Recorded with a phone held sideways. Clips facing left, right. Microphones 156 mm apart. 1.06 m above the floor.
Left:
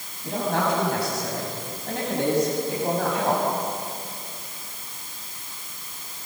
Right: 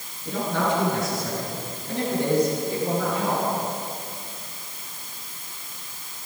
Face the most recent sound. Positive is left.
turn(degrees=85)